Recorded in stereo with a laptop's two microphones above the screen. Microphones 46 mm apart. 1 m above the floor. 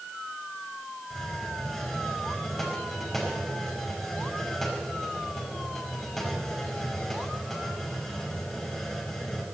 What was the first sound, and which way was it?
A hiss, 5° left (ahead or behind).